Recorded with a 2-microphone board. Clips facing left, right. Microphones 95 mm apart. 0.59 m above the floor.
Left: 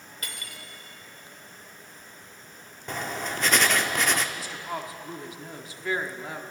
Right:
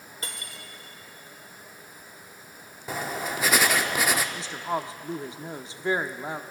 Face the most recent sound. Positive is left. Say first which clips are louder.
# right 4 dB
turn(degrees=-25)  # may be behind; listen again after turning